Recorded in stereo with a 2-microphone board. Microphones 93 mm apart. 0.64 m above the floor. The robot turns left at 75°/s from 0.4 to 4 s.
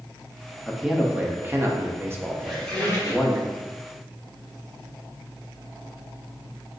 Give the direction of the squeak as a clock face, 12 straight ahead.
6 o'clock.